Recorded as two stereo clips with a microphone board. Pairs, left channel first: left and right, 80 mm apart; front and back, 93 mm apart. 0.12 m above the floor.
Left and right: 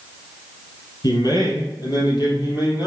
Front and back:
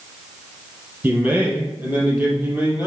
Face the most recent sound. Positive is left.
turn(degrees=110)